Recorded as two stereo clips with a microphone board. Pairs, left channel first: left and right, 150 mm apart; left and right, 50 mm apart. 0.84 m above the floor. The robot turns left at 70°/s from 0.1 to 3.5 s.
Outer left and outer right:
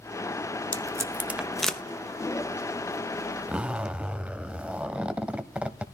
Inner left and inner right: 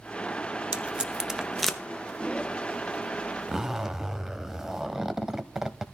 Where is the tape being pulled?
25° right (ahead or behind), 0.9 m; by 1.8 s 5° left (ahead or behind), 0.9 m.